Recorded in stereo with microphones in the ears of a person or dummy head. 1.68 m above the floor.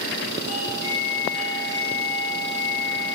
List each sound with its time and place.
0.5 s a doorbell: 70° left (ahead or behind), 5 m